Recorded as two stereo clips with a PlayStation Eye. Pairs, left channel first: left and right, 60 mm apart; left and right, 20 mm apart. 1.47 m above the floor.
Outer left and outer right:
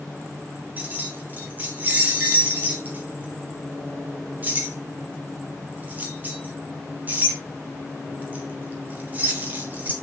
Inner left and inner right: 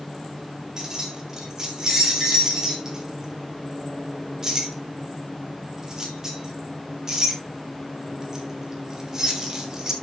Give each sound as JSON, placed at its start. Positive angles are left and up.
{"t": 0.8, "sound": "keys jangling", "side_deg": -25, "distance_m": 3.0}